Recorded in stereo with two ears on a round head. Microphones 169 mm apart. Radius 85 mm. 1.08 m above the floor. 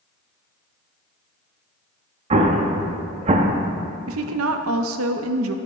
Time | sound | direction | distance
2.3 | an explosion | 35° right (ahead or behind) | 0.6 m
4.1 | a woman speaking | 80° right | 0.6 m